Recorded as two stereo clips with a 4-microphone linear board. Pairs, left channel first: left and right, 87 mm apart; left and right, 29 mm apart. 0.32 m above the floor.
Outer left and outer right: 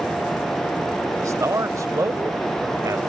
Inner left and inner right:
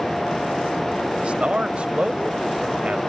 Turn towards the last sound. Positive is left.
turn(degrees=-40)  # may be behind; listen again after turning